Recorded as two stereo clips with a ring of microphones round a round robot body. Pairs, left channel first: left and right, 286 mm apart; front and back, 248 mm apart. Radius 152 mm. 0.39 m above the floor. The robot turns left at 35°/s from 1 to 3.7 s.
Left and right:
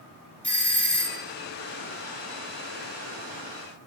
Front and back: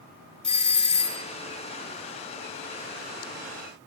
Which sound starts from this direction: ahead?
A doorbell, at 0.4 s.